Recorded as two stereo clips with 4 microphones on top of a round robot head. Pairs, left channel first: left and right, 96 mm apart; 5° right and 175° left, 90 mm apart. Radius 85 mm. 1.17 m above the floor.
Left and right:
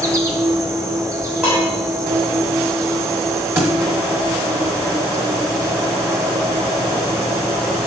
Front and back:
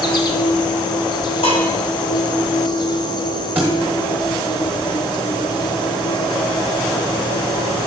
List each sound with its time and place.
0.0 s an insect: 35° right, 1.0 m
1.4 s dishes clattering: 5° right, 3 m
3.5 s a thud: 125° right, 1.0 m